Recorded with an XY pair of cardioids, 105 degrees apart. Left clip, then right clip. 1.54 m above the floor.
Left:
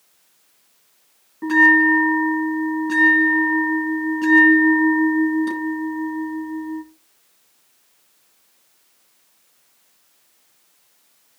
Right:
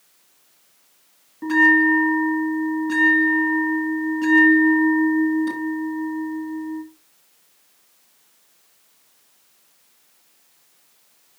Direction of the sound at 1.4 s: 20° left.